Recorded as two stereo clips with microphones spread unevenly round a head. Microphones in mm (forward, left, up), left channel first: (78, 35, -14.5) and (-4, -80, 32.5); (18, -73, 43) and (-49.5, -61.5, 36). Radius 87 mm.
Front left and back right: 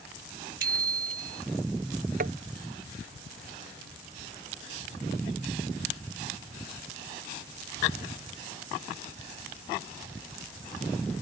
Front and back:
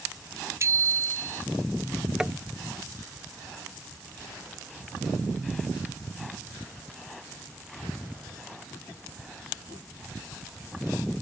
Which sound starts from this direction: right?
Tapping, at 2.2 s.